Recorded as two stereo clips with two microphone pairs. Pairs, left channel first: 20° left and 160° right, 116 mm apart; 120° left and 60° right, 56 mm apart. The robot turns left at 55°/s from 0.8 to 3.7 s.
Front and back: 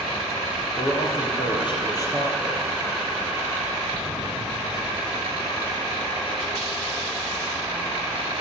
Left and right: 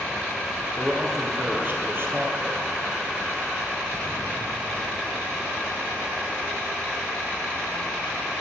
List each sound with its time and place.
0.8 s a man speaking: 35° left, 2.5 m; by 2.6 s 65° right, 2.5 m